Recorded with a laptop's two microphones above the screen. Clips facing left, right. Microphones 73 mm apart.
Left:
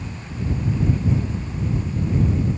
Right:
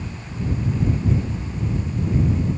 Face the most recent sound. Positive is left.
No sound to turn to.